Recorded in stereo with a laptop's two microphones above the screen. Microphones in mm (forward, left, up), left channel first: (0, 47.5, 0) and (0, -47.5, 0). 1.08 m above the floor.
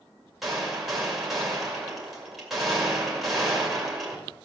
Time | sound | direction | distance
0.4 | a gunshot | centre (ahead or behind) | 2.5 m